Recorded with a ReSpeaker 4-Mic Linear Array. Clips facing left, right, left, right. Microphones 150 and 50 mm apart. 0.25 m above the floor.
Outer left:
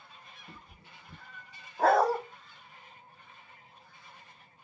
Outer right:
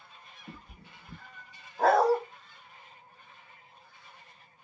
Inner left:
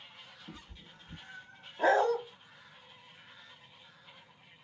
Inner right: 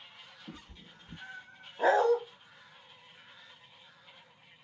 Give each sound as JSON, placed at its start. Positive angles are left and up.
{"t": 0.5, "sound": "a cat meowing", "side_deg": -85, "distance_m": 0.7}
{"t": 1.8, "sound": "a dog barking", "side_deg": 0, "distance_m": 0.5}